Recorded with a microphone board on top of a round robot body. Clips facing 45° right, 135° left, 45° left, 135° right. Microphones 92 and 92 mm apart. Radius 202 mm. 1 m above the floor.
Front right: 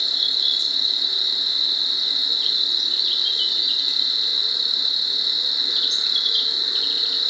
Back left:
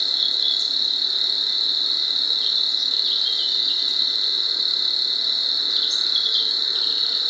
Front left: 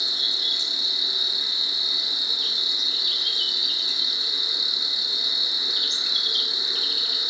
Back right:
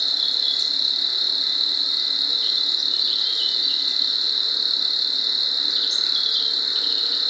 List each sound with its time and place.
0.0 s an insect: 150° left, 1.3 m